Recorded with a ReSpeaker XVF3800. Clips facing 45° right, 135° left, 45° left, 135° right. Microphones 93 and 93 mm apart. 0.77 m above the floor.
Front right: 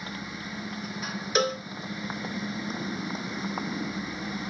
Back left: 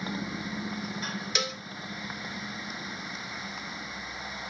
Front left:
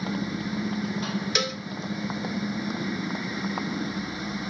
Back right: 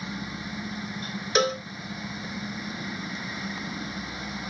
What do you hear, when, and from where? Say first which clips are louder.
0.0 s a motorcycle: back left 3 dB, front left 6 dB; 65° left; by 4.5 s 5° right
1.4 s a cowbell: front right 11 dB, back right 6 dB; 85° right